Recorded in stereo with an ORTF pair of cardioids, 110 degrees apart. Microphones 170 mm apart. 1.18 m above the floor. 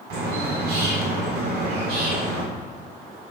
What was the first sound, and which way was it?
A bird, 70° right.